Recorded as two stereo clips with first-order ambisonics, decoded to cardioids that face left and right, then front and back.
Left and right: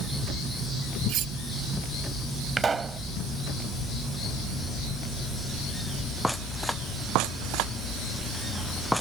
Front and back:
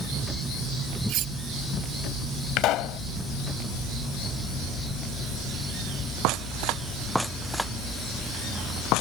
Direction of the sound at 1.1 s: 135° right.